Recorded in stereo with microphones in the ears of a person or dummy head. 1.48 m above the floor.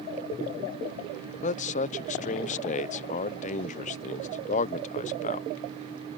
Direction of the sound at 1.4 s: 40° left (ahead or behind).